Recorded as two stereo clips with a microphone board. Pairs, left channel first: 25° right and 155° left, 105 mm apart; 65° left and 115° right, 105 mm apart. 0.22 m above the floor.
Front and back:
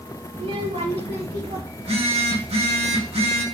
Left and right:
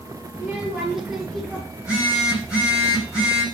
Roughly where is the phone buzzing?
Behind.